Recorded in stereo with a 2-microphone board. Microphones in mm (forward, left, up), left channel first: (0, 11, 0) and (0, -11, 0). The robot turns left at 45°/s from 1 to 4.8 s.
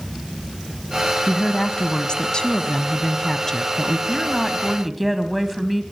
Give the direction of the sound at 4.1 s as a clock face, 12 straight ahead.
11 o'clock.